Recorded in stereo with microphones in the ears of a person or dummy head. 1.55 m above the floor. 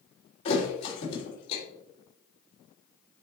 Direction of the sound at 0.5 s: 40° left (ahead or behind).